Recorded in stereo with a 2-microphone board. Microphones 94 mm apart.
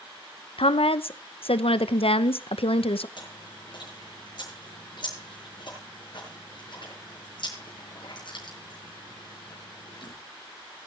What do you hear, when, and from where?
0.6 s a woman speaking: 85° left, 0.7 m
3.2 s chewing: 55° left (ahead or behind), 8 m